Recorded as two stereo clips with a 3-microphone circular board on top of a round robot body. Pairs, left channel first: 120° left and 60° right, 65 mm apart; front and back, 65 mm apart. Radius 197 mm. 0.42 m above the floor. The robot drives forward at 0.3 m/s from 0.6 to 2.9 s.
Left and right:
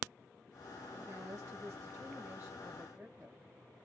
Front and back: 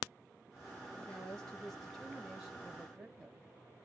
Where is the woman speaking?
70° right, 1.0 m; by 3.4 s 120° right, 1.0 m.